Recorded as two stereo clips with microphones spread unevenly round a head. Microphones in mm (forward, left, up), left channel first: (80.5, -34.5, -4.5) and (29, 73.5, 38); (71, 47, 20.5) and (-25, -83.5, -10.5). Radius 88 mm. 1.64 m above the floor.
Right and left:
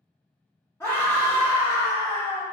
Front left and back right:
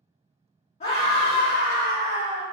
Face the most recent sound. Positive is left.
turn(degrees=15)